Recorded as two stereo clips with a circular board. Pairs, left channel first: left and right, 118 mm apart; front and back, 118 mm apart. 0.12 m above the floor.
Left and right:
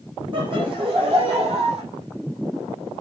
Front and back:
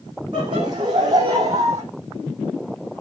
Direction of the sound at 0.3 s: 135° right.